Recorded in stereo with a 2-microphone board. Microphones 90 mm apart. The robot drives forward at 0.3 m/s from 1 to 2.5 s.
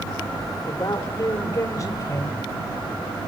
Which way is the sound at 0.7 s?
35° left (ahead or behind).